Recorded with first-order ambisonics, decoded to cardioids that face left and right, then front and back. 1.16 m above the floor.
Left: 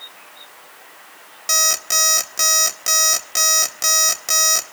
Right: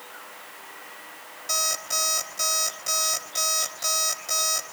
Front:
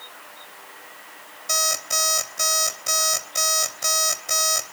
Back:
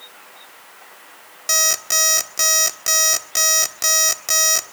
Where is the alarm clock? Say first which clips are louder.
Left 8 dB, back 4 dB; 140° left, 1.4 m.